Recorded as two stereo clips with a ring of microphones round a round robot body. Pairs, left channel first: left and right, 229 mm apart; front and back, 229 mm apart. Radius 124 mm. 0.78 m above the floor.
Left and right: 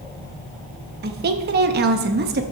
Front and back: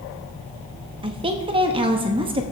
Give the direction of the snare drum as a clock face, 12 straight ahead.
No snare drum in this recording.